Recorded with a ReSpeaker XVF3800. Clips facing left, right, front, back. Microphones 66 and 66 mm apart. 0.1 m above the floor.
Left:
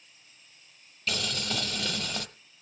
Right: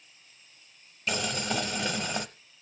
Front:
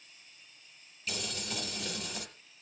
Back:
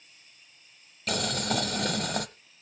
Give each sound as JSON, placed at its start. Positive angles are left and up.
{"t": 1.1, "sound": "boiling", "azimuth_deg": -160, "distance_m": 0.6}